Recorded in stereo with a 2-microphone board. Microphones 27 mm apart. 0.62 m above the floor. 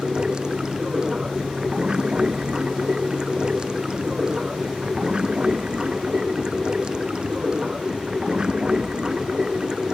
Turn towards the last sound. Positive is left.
turn(degrees=-30)  # may be behind; listen again after turning